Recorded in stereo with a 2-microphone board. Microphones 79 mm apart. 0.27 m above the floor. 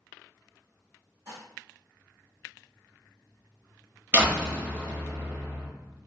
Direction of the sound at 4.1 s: 20° right (ahead or behind).